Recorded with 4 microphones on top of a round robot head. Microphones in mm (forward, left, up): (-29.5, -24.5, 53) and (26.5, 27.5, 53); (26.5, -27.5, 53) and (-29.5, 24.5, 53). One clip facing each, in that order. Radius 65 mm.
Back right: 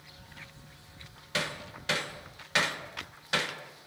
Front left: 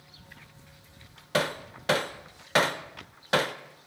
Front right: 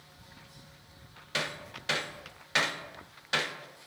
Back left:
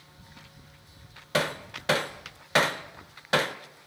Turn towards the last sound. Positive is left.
turn(degrees=90)